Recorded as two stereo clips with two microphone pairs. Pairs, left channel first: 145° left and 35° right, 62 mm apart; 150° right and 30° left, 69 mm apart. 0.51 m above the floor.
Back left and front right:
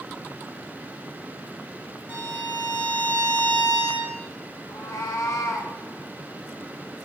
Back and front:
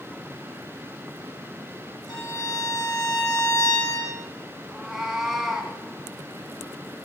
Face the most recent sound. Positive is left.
turn(degrees=115)